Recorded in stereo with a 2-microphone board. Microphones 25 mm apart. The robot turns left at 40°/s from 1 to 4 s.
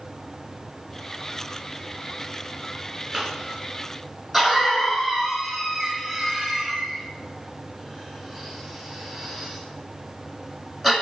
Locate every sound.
3.1 s a cough: 15° right (ahead or behind), 1.4 m; by 10.9 s 5° left (ahead or behind), 1.4 m